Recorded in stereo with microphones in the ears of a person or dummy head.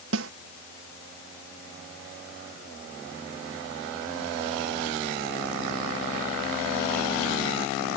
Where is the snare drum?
70° right (ahead or behind).